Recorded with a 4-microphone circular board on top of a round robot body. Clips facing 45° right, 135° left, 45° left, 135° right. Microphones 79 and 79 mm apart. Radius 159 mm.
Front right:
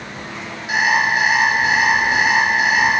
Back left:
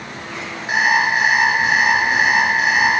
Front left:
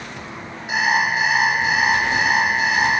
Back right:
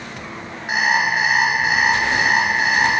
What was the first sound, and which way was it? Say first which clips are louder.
An alarm clock: even, back right 1 dB; 175° right.